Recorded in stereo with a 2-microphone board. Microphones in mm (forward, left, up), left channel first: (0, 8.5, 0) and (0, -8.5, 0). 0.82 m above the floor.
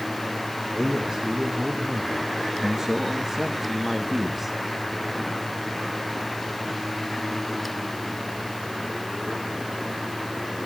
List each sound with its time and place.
0.7 s a man speaking: 55° right (ahead or behind), 3 m; by 4.6 s 10° right (ahead or behind), 1.3 m